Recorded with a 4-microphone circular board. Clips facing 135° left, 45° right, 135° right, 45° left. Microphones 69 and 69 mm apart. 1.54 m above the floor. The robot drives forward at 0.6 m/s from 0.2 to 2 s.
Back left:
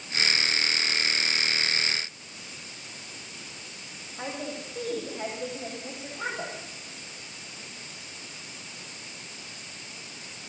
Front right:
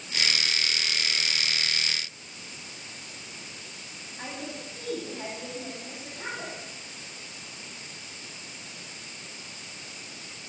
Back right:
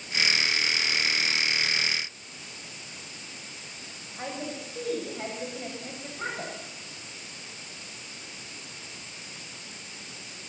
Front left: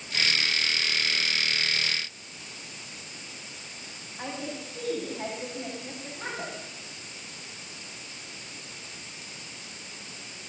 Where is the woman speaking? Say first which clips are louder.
Back left 3 dB, even; 165° left, 8 m.